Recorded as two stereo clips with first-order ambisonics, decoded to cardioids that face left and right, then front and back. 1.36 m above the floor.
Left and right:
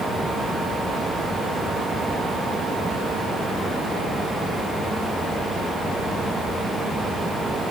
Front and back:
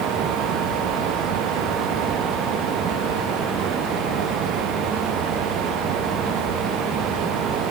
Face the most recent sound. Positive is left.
No sound to turn to.